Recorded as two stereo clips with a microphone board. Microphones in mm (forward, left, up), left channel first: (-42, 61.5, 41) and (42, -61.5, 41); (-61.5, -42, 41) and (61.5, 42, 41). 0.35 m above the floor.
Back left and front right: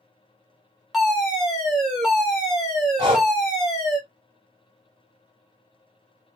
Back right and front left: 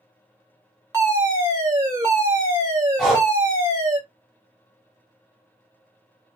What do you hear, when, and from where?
0.9 s a fire alarm: 30° left, 1.8 m
3.0 s breathing: 50° right, 1.0 m